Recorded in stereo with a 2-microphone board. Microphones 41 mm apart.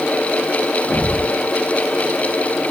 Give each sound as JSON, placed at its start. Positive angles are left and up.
{"t": 0.9, "sound": "a thud", "side_deg": -90, "distance_m": 8.0}